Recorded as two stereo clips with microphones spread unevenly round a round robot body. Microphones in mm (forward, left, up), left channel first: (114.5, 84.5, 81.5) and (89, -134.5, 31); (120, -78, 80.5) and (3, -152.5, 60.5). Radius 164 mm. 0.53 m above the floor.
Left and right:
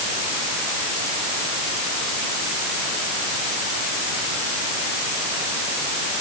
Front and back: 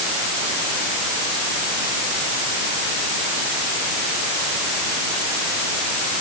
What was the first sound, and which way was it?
Only background noise.